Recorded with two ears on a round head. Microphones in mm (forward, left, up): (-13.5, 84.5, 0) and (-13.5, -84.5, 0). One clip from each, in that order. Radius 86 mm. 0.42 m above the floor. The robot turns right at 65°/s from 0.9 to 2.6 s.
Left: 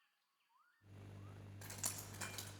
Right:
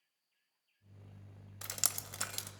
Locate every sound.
1.6 s dripping: 80° right, 0.7 m; by 2.5 s 30° right (ahead or behind), 0.7 m